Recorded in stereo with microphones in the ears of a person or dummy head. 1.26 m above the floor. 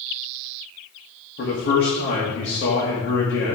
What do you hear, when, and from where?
1.4 s a man speaking: 55° left (ahead or behind), 1.7 m